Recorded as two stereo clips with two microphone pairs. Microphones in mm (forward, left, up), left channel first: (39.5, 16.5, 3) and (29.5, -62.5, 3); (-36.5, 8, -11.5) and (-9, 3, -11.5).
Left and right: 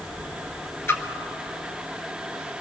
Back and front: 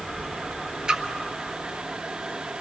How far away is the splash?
About 1.3 m.